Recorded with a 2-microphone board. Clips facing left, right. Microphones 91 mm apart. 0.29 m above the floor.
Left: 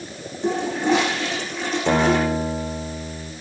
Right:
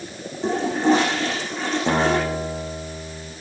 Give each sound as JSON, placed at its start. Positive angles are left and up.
{"t": 0.4, "sound": "a toilet flushing", "side_deg": -35, "distance_m": 8.5}
{"t": 1.9, "sound": "a guitar", "side_deg": 0, "distance_m": 5.0}